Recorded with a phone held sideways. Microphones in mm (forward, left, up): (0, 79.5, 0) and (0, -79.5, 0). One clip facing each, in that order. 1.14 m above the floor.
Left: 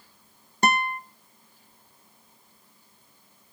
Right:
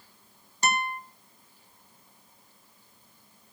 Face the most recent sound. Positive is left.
turn(degrees=55)  # may be behind; listen again after turning